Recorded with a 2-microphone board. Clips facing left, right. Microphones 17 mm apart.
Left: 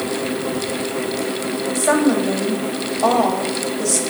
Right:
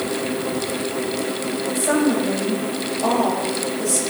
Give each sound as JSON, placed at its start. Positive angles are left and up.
{"t": 1.8, "sound": "a woman speaking", "side_deg": 45, "distance_m": 2.5}